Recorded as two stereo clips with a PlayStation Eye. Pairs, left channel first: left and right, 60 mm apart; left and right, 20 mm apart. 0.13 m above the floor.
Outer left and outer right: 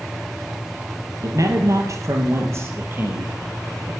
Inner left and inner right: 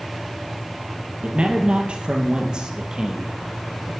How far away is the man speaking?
About 3 m.